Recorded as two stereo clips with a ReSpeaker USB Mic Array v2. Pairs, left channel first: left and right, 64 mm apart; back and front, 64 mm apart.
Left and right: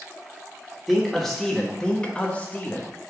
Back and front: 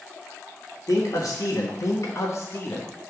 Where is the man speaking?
Straight behind, 1.6 m; by 2.9 s 135° left, 1.0 m.